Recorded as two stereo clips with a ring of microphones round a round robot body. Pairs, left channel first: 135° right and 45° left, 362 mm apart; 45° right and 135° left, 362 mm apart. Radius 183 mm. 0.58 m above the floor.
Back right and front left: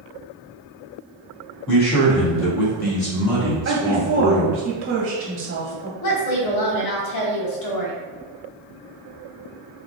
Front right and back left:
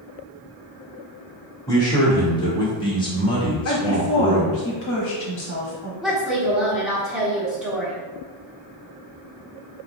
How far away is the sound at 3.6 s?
About 1.0 m.